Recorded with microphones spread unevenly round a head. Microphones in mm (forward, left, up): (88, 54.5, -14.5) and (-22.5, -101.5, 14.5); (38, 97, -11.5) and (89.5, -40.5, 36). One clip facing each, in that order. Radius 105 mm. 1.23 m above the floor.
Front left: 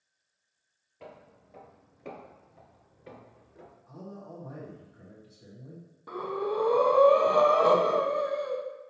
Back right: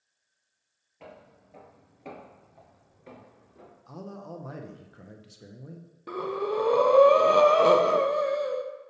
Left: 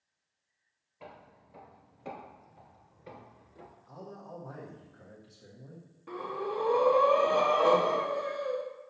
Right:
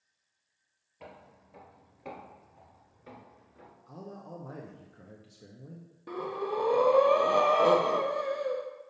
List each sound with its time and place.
1.0 s footsteps: 35° right, 1.9 m; by 3.8 s 105° left, 1.1 m
3.9 s a man speaking: 125° right, 0.7 m
6.1 s breathing: 85° right, 0.6 m